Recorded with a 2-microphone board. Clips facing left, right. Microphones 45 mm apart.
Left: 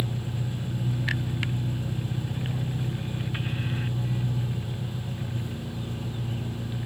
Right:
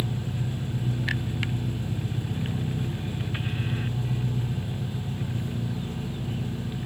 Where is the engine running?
45° right (ahead or behind), 5 m.